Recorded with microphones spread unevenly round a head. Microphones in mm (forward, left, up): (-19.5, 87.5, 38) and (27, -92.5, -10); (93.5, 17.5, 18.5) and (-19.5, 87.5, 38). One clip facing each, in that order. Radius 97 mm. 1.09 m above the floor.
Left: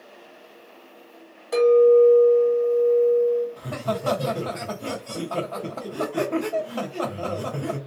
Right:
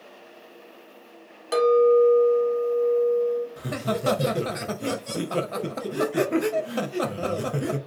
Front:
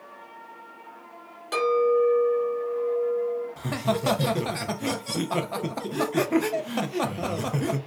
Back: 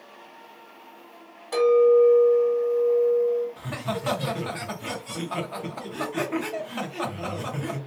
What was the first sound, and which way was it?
A clink, 75° right.